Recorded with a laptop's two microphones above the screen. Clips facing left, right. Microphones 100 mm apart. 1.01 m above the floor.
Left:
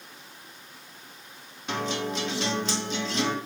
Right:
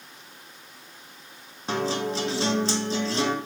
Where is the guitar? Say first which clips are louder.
Right 3 dB; 35° right (ahead or behind), 0.9 m.